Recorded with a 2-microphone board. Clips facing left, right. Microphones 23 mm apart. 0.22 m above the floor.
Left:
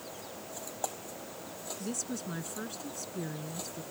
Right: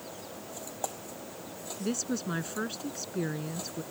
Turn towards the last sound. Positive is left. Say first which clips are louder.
# right 6 dB
turn(degrees=-25)  # may be behind; listen again after turning